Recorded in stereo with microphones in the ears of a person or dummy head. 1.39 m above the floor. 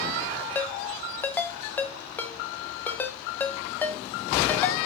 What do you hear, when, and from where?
0.6 s a ringtone: 10° left (ahead or behind), 0.7 m